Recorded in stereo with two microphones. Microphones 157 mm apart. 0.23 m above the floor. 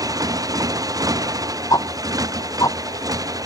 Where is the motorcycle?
20° right (ahead or behind).